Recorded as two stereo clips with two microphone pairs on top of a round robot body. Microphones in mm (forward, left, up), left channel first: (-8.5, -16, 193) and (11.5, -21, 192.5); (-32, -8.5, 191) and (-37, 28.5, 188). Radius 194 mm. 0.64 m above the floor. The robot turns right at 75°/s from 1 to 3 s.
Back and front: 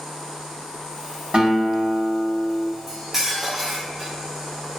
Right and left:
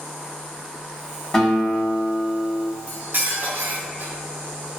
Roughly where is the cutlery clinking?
Ahead left.